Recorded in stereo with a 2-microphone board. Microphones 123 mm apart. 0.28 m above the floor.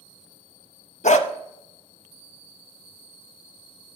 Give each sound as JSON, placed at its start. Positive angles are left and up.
{"t": 1.0, "sound": "a dog barking", "side_deg": 75, "distance_m": 0.7}